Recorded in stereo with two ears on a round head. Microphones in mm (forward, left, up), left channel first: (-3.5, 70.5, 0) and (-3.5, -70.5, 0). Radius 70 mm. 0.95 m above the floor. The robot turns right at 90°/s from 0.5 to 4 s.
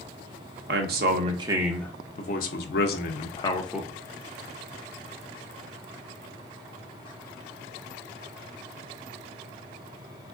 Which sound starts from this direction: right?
A man speaking, at 0.7 s.